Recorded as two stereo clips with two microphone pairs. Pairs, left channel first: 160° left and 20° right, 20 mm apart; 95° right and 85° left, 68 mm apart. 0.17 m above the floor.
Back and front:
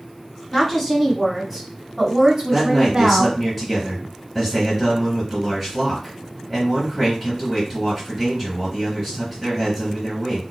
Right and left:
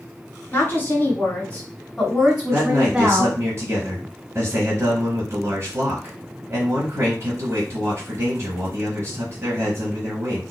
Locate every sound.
0.5 s a woman speaking: 135° right, 1.7 m; by 3.4 s 35° left, 1.7 m
2.5 s a man speaking: 70° left, 1.9 m